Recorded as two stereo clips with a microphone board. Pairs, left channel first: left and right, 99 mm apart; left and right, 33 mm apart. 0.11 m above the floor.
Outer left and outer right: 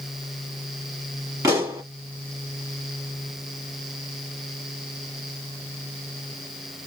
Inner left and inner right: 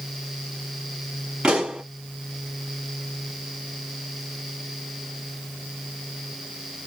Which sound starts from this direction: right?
A pop, at 1.4 s.